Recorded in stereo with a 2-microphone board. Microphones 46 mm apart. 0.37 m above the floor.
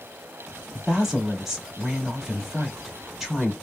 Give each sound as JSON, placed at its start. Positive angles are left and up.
{"t": 0.7, "sound": "a woman speaking", "side_deg": -10, "distance_m": 1.6}